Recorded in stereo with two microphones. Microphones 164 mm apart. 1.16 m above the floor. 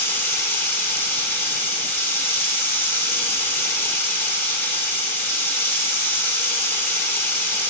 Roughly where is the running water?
Centre.